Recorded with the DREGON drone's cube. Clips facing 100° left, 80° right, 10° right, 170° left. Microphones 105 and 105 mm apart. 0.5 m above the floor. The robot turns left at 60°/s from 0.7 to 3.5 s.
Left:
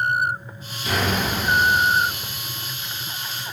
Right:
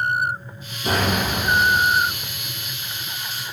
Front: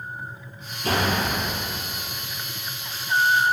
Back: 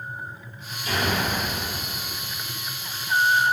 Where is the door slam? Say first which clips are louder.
Right 2 dB, front 2 dB; 30° right, 4 m; by 1.6 s 80° right, 4 m.